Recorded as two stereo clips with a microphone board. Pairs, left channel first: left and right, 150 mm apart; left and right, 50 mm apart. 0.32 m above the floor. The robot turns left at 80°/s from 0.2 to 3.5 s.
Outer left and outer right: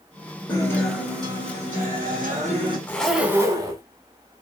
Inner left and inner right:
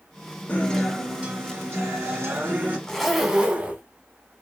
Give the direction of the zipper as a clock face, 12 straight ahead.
11 o'clock.